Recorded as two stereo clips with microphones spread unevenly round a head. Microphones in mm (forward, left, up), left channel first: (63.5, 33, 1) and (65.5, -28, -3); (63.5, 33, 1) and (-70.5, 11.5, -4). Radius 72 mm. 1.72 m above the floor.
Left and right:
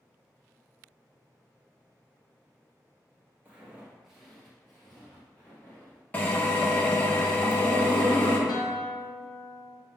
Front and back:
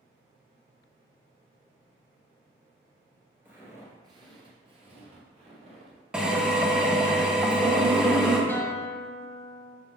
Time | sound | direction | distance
3.5 | footsteps | 105° right | 1.8 m
6.1 | a drill | 105° left | 1.1 m
8.5 | a guitar | 85° left | 1.0 m